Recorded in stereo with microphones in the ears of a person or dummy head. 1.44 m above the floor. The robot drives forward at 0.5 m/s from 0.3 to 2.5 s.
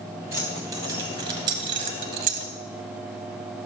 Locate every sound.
0.3 s keys jangling: 15° right (ahead or behind), 1.3 m; by 2.5 s 40° right (ahead or behind), 0.6 m